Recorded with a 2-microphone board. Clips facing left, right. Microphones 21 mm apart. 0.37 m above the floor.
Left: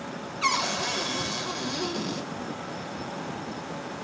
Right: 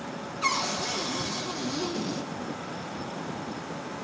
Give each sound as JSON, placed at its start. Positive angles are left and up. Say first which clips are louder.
{"t": 0.4, "sound": "a cupboard door", "louder": "left 2 dB", "side_deg": 40, "distance_m": 1.3}